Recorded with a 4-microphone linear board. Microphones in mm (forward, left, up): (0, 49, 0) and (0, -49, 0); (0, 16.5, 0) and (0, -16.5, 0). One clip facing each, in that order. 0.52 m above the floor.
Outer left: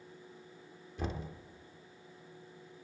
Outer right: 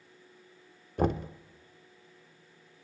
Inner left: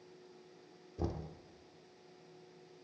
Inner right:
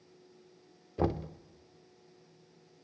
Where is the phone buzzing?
No phone buzzing in this recording.